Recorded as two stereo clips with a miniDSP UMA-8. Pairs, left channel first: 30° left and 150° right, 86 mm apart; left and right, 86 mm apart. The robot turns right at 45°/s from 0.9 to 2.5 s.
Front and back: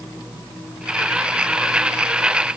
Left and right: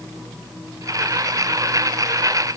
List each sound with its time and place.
Only background noise.